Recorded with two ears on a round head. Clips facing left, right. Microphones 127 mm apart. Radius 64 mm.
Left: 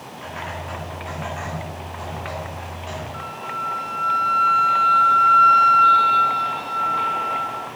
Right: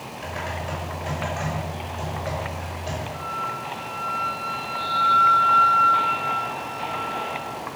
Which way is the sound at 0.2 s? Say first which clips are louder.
Right 1 dB; 40° right (ahead or behind).